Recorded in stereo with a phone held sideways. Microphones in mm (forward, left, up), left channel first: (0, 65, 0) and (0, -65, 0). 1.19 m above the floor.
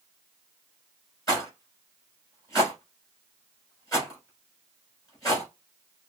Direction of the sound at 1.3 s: 30° left (ahead or behind).